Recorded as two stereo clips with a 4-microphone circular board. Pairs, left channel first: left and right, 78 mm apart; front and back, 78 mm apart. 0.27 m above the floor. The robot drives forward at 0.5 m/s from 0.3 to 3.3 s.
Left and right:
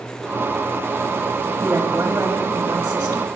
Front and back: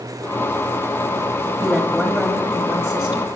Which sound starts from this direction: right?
A woman speaking, at 1.6 s.